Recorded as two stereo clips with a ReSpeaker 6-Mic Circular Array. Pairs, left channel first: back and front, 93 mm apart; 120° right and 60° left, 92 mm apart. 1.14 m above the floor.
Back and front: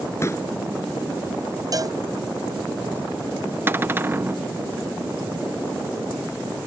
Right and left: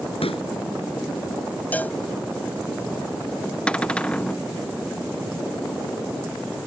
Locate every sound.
0.2 s a pop: 120° right
1.7 s a cowbell: 45° right
3.7 s a cupboard door: 50° right